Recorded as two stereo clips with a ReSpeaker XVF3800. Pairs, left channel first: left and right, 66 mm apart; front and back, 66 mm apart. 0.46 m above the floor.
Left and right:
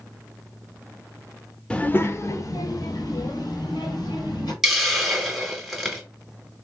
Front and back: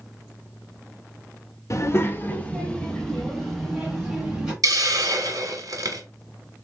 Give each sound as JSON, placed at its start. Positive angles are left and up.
{"t": 1.7, "sound": "a child speaking", "azimuth_deg": 15, "distance_m": 0.6}
{"t": 4.6, "sound": "a hiss", "azimuth_deg": -175, "distance_m": 1.2}